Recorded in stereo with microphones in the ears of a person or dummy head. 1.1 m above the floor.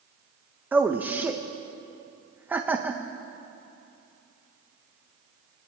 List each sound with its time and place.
0.7 s a man speaking: 10° right (ahead or behind), 0.5 m